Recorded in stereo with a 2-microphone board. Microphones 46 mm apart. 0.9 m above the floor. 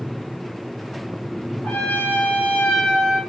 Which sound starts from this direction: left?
A trumpet, at 1.6 s.